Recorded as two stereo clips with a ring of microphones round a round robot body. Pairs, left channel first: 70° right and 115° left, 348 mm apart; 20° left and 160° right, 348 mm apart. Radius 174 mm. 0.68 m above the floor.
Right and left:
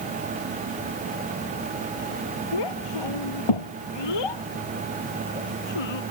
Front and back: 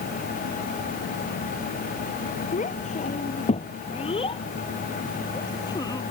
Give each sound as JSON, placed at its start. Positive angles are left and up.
{"t": 2.5, "sound": "a child speaking", "azimuth_deg": -50}